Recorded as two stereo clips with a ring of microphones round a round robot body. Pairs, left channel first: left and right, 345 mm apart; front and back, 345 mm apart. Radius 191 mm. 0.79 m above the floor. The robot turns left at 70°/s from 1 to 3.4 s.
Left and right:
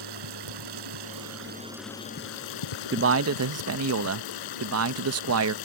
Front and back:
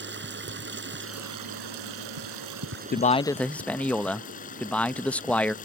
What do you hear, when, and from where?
0.0 s running water: 120° right; by 5.7 s 70° left
2.9 s a man speaking: 50° right; by 5.5 s 85° right